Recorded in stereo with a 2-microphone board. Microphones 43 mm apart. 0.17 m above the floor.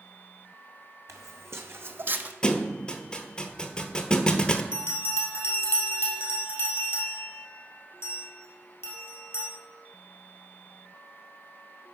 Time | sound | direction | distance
1.1 | footsteps | 85° right | 0.9 m
2.4 | a thud | 20° left (ahead or behind) | 0.6 m
4.7 | a bell | 65° left (ahead or behind) | 1.8 m